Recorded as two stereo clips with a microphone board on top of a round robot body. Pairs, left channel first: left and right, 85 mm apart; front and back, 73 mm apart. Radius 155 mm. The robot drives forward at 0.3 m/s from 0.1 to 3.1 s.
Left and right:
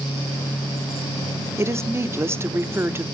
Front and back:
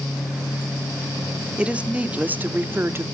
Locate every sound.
1.6 s a woman speaking: 115° right, 1.2 m; by 3.0 s 140° right, 1.4 m